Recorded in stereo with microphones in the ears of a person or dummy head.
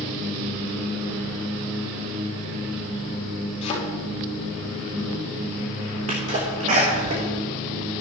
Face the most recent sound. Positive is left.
turn(degrees=-40)  # may be behind; listen again after turning